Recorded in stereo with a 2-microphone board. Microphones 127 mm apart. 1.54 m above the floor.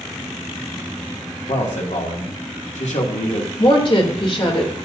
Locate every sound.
1.5 s a man speaking: 65° left (ahead or behind), 2.5 m
3.6 s a woman speaking: 45° left (ahead or behind), 3 m